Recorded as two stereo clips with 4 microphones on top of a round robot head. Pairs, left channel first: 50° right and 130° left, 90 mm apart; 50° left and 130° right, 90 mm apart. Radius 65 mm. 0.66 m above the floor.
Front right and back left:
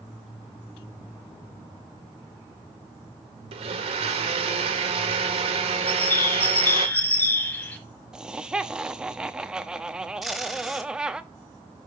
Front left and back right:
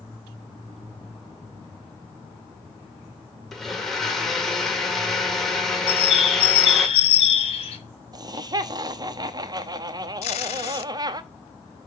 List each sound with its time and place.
3.5 s a blender: 135° left, 1.6 m
5.9 s a bird: 20° left, 1.3 m
8.1 s laughter: 150° right, 0.8 m
10.2 s tape being pulled: 40° left, 0.9 m